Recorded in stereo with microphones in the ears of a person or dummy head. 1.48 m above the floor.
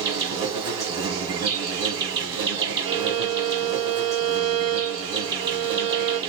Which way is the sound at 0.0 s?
20° right (ahead or behind).